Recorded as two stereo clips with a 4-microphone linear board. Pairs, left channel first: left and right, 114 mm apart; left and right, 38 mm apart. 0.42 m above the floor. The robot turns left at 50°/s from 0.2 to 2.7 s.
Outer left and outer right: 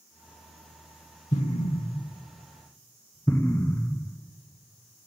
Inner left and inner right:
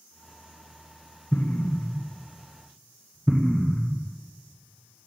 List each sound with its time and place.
1.3 s an explosion: 85° left, 0.8 m; by 4.2 s 20° left (ahead or behind), 0.8 m